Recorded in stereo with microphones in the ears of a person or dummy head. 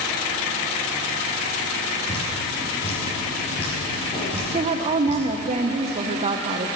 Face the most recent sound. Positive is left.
turn(degrees=-35)  # may be behind; listen again after turning